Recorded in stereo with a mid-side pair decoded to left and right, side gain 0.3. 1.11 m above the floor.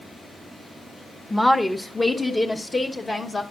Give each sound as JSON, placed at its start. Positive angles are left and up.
{"t": 1.3, "sound": "a woman speaking", "azimuth_deg": 10, "distance_m": 0.9}